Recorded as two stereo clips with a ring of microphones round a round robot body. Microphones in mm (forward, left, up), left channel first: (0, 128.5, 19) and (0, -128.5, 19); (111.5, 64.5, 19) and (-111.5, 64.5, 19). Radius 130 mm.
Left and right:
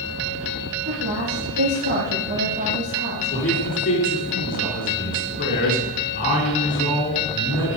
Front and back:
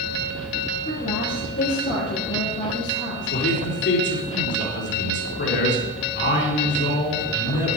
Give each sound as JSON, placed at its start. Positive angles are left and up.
{"t": 0.8, "sound": "a woman speaking", "azimuth_deg": -55, "distance_m": 7.0}
{"t": 3.3, "sound": "a man speaking", "azimuth_deg": 35, "distance_m": 4.5}